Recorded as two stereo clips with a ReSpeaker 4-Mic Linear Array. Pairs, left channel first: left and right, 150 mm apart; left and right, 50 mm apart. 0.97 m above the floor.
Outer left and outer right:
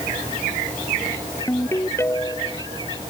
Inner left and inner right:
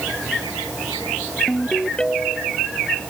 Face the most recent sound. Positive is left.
turn(degrees=20)  # may be behind; listen again after turning